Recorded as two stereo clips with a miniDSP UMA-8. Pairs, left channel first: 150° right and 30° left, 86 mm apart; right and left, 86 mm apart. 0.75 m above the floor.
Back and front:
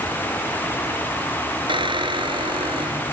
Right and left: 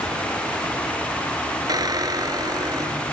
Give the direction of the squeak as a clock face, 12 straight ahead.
10 o'clock.